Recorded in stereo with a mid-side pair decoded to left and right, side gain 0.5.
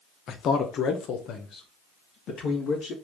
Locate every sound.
0.3 s a man speaking: 60° left, 0.6 m; by 2.9 s 65° left, 2 m